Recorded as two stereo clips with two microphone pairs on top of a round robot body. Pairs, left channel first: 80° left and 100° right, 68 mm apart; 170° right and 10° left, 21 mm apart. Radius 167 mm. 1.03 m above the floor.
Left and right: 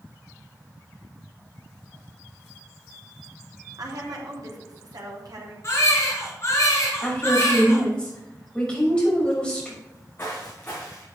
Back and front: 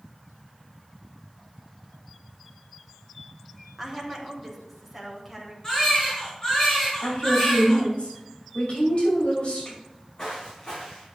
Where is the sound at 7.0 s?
155° left, 6 m.